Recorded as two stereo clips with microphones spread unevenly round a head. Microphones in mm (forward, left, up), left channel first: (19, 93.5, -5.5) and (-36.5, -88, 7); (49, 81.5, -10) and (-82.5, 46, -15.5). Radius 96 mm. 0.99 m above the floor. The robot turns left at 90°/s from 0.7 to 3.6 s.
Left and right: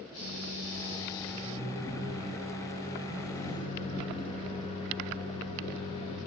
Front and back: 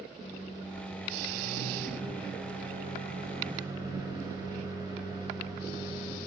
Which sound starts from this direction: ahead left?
A microwave, at 0.2 s.